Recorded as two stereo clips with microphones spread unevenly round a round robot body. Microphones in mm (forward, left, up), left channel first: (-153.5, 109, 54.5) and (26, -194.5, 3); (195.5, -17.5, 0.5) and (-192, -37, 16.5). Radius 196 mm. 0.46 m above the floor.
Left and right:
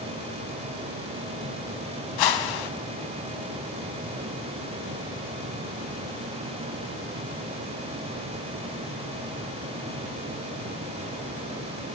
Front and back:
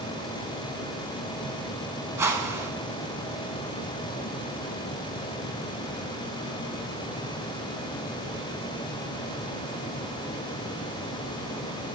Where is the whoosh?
100° left, 0.6 m.